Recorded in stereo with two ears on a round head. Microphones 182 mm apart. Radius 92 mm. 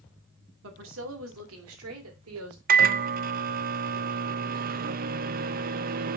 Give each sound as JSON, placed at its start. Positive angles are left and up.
{"t": 0.6, "sound": "a woman speaking", "side_deg": -70, "distance_m": 2.0}
{"t": 2.7, "sound": "a microwave", "side_deg": -45, "distance_m": 0.5}